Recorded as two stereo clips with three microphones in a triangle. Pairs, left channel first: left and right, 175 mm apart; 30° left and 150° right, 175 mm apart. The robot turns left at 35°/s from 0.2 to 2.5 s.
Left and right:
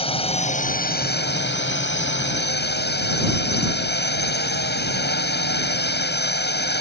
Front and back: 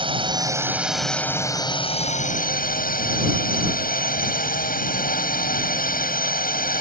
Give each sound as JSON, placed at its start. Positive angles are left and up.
{"t": 0.0, "sound": "a drone", "azimuth_deg": 150}